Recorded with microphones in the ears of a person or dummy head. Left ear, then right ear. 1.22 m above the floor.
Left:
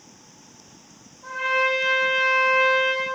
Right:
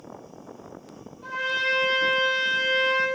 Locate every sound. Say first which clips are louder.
1.2 s a trumpet: left 3 dB; 60° right (ahead or behind), 1.1 m